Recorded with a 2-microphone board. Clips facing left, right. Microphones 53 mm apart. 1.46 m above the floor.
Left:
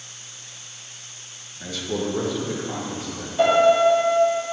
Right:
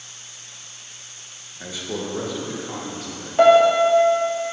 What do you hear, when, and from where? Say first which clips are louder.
1.6 s a man speaking: left 3 dB; 20° right (ahead or behind), 1.4 m; by 3.3 s 10° left (ahead or behind), 3 m
3.4 s a piano: right 3 dB; 45° right (ahead or behind), 2 m